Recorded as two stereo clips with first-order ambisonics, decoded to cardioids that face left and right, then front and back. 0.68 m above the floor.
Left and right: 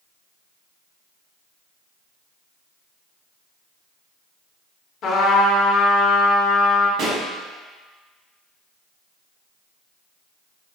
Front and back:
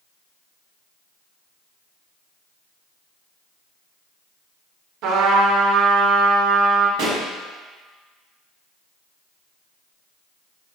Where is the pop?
145° right, 1.1 m.